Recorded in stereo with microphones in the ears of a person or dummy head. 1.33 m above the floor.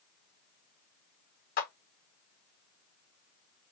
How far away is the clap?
About 0.9 m.